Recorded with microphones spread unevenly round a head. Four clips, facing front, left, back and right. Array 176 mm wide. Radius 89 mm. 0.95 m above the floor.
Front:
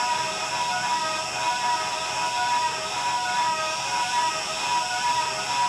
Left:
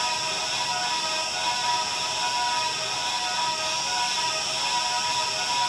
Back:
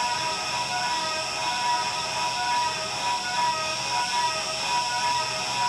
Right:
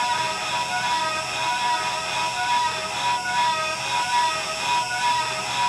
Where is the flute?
I don't hear a flute.